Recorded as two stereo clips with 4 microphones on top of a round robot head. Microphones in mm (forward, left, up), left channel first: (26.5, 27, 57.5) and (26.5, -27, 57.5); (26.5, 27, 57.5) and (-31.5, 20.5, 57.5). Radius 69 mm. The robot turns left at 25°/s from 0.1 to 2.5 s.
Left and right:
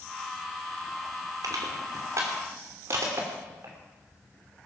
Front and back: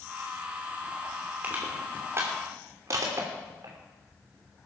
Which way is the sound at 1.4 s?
105° right.